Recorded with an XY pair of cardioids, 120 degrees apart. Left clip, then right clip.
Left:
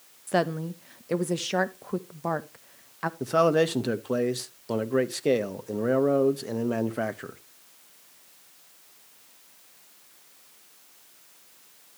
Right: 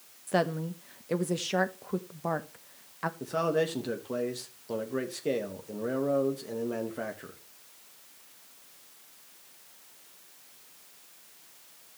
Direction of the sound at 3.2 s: 40° left.